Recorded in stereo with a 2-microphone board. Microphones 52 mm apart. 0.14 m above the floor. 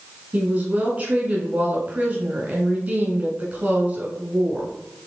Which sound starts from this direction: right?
A woman speaking, at 0.3 s.